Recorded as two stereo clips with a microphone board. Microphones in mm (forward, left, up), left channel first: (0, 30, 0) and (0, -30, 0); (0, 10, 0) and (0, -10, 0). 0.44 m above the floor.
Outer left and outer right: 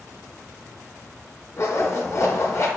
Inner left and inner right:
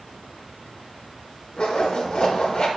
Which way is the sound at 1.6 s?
50° left (ahead or behind).